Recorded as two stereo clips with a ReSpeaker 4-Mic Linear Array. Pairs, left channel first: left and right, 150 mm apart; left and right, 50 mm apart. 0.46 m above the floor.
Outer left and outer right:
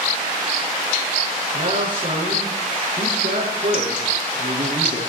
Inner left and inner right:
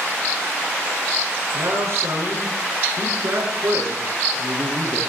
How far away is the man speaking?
About 8 m.